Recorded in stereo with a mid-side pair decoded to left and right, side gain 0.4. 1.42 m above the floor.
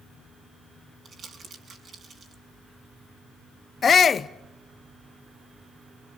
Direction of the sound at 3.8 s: 50° left.